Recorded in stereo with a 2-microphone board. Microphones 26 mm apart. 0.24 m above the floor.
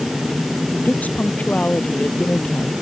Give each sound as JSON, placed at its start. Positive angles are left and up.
{"t": 0.7, "sound": "a woman speaking", "side_deg": 60}